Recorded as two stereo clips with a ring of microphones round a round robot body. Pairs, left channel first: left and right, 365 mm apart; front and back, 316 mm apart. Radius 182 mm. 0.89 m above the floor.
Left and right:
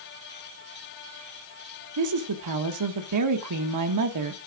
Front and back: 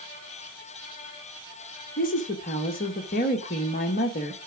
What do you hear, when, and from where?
2.0 s a woman speaking: 60° right, 1.2 m